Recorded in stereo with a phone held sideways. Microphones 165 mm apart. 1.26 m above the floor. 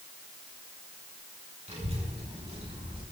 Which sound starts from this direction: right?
A child speaking, at 1.7 s.